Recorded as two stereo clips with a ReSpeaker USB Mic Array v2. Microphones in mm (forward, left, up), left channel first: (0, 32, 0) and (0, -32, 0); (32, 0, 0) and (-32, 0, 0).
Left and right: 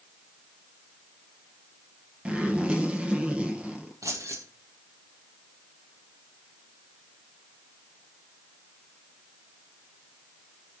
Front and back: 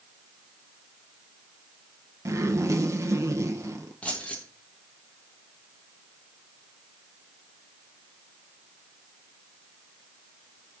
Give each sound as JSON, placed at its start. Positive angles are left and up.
{"t": 2.2, "sound": "a zipper", "azimuth_deg": -160, "distance_m": 1.7}
{"t": 4.0, "sound": "keys jangling", "azimuth_deg": -65, "distance_m": 2.5}